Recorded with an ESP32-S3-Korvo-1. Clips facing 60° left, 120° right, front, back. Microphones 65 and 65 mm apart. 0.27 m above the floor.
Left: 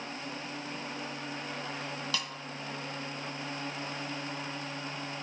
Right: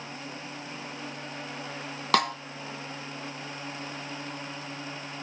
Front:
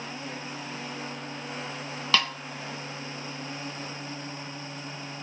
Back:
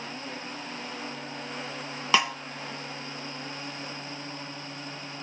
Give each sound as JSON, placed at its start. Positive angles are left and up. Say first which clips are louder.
{"t": 2.1, "sound": "a snare drum", "louder": "right 18 dB, back 2 dB", "azimuth_deg": -105, "distance_m": 0.5}